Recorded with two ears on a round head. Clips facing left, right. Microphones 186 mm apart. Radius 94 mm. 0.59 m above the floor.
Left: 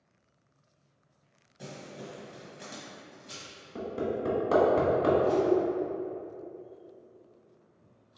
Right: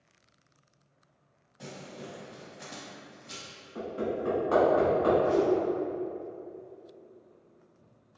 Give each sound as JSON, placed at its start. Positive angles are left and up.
{"t": 1.6, "sound": "crumpling", "side_deg": 15, "distance_m": 1.4}
{"t": 3.8, "sound": "hammering", "side_deg": 45, "distance_m": 1.2}
{"t": 5.2, "sound": "a whoosh", "side_deg": 20, "distance_m": 0.7}